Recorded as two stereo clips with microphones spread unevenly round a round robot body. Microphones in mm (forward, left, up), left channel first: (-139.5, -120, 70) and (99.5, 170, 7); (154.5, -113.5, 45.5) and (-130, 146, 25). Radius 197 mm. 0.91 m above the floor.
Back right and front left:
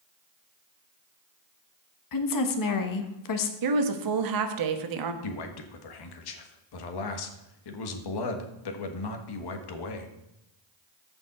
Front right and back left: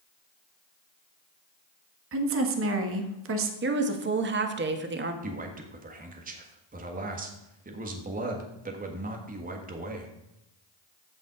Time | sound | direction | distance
2.1 | a woman speaking | 170° right | 1.4 m
3.6 | a woman speaking | 75° left | 1.3 m
5.2 | a man speaking | 155° right | 1.5 m